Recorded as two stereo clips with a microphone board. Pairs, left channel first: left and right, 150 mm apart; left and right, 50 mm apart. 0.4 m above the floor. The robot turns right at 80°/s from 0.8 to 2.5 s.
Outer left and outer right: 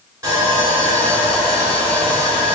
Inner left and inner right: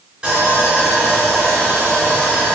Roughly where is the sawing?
Behind right.